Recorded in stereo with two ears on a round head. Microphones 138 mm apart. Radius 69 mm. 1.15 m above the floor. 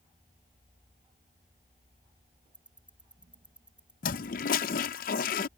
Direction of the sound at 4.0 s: 60° left (ahead or behind).